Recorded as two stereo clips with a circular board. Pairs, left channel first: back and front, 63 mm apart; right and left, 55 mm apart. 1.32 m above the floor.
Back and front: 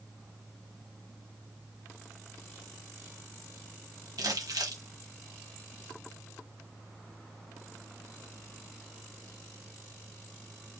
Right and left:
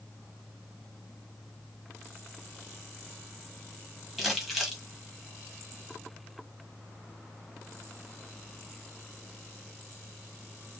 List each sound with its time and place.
4.2 s crumpling: 10° left, 1.5 m